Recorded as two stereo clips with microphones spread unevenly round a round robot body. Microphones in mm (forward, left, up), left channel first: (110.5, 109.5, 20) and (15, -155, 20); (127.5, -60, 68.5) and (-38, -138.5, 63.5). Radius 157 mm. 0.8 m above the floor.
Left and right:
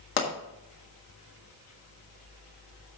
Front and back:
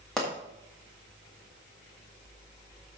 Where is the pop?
115° left, 1.8 m.